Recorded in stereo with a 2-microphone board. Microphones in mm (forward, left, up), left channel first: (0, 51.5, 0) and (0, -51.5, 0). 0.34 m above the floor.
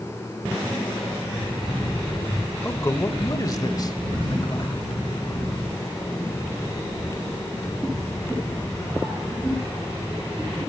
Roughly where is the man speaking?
Left.